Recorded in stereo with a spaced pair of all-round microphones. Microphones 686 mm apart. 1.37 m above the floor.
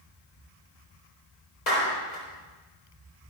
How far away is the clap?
About 4 m.